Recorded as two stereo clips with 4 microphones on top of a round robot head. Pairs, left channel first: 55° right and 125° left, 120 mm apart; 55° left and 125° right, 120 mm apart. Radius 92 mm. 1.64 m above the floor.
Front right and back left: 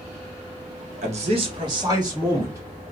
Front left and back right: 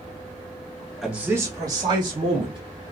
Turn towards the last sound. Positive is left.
turn(degrees=-170)